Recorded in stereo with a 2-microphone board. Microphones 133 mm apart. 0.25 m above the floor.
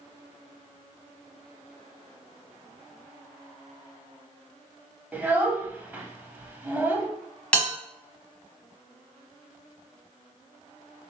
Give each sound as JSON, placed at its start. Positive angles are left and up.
{"t": 5.1, "sound": "a child speaking", "side_deg": -15, "distance_m": 0.7}
{"t": 7.5, "sound": "a bell", "side_deg": 10, "distance_m": 1.1}